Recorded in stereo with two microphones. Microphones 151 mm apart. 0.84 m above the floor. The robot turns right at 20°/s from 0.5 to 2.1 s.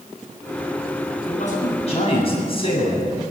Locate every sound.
1.3 s a man speaking: 55° left (ahead or behind), 8 m; by 3.2 s 40° left (ahead or behind), 8 m